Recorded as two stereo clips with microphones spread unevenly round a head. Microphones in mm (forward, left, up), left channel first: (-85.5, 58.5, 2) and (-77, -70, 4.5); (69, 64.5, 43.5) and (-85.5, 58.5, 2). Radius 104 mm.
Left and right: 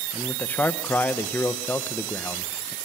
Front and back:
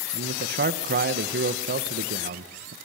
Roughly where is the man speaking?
Behind.